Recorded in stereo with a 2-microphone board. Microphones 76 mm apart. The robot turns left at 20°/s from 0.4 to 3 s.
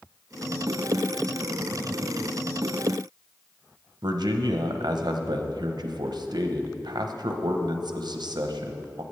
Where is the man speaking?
75° right (ahead or behind), 0.8 m.